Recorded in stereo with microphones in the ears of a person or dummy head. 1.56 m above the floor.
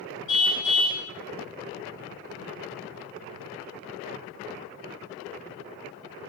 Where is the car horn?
75° left (ahead or behind), 7.5 m.